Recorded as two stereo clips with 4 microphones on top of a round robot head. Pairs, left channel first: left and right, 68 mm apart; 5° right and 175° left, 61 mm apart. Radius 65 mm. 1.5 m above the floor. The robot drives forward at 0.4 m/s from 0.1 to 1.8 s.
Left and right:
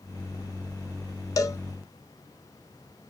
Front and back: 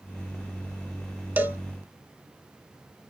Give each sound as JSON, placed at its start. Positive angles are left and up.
{"t": 1.4, "sound": "a cowbell", "azimuth_deg": 115, "distance_m": 0.5}